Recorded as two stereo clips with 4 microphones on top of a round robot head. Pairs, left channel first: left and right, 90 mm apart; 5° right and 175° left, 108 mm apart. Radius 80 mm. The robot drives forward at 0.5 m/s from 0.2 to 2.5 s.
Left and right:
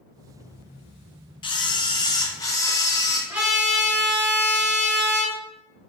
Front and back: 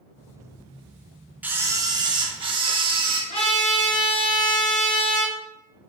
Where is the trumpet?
20° right, 1.3 m.